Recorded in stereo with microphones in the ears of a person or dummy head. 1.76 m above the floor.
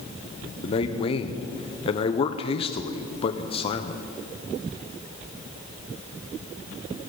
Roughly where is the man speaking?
Left.